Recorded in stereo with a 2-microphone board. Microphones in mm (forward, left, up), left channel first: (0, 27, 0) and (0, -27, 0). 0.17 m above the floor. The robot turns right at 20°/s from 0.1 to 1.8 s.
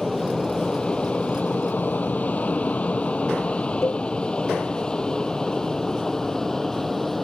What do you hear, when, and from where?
0.0 s an aircraft: 5° left (ahead or behind)
3.8 s a cowbell: 50° left (ahead or behind)